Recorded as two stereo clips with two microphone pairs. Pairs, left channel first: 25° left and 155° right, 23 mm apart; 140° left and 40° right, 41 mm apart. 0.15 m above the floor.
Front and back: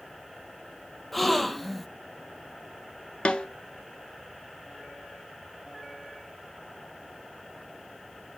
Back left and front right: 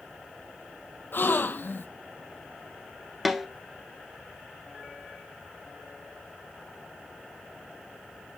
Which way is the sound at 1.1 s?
115° left.